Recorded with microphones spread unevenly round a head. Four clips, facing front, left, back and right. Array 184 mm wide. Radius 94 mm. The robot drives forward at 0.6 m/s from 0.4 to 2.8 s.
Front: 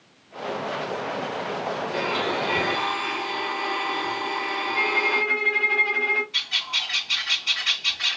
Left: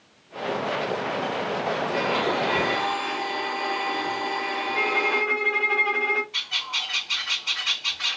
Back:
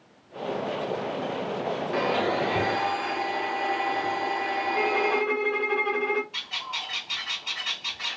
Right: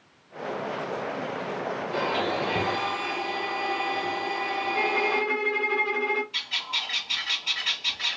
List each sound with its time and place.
1.9 s a blender: 175° left, 1.4 m
4.7 s a violin: 160° left, 2 m
6.3 s a bird: straight behind, 3 m